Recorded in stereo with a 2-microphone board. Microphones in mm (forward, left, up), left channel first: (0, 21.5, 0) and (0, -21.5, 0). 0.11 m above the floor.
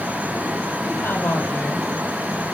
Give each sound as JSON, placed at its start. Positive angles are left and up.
{"t": 0.8, "sound": "a woman speaking", "side_deg": 55, "distance_m": 3.0}